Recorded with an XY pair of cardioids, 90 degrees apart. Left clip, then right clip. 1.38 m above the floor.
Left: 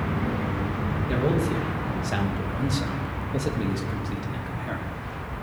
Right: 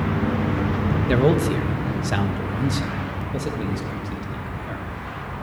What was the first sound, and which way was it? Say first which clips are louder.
A man speaking: right 6 dB; 70° right.